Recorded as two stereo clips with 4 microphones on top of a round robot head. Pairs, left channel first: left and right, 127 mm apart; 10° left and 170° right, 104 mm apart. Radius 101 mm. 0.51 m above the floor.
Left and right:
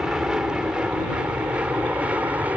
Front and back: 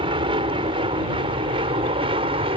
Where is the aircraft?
175° right; by 2.6 s 170° right.